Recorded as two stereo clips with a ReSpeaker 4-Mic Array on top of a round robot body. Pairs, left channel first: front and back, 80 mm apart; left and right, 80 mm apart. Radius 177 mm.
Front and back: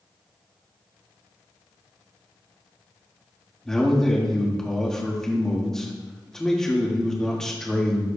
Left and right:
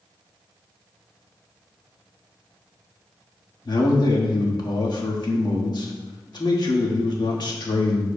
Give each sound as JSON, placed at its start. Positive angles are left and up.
{"t": 3.6, "sound": "a man speaking", "azimuth_deg": 80, "distance_m": 1.8}